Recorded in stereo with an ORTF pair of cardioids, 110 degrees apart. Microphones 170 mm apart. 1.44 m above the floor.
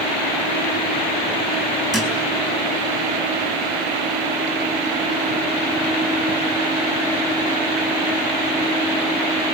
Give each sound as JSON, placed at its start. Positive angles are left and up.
{"t": 1.9, "sound": "a thud", "azimuth_deg": -5, "distance_m": 5.0}